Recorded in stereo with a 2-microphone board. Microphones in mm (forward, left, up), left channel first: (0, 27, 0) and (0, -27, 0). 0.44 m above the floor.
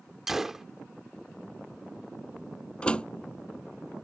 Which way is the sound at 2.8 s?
20° left (ahead or behind).